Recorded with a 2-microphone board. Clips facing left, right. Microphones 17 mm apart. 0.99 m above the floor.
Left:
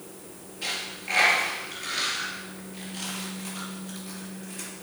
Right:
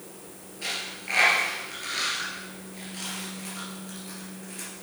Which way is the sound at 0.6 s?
Centre (ahead or behind).